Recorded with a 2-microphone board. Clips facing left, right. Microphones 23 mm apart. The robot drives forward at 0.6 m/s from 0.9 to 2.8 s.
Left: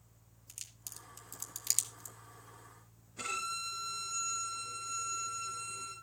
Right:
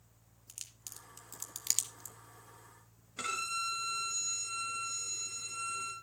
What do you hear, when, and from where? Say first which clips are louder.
0.5 s a crack: even; 15° right (ahead or behind), 1.8 m; by 2.2 s 25° right (ahead or behind), 1.2 m
3.2 s a violin: right 2 dB; 70° right (ahead or behind), 4.5 m